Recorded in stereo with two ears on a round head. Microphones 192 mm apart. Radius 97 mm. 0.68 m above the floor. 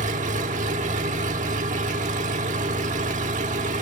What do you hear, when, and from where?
0.0 s an engine running: 35° right (ahead or behind), 1.4 m